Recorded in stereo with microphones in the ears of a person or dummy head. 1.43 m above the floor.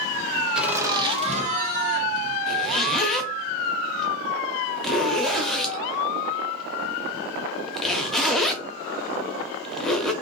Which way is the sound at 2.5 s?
5° left (ahead or behind).